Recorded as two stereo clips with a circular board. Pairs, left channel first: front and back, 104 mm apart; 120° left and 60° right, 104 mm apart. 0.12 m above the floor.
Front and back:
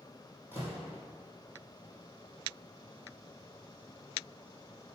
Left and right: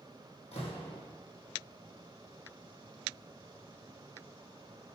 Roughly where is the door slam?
Left.